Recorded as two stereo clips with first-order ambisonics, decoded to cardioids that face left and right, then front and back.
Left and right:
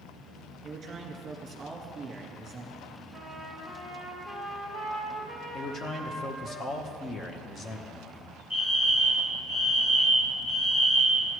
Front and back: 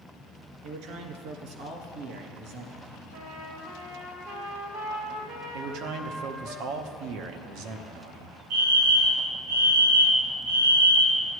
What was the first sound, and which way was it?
A man speaking, 155° right.